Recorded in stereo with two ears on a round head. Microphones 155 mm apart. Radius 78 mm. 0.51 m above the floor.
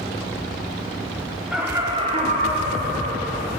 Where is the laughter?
Centre (ahead or behind), 0.7 m; by 3.5 s 60° right (ahead or behind), 1.6 m.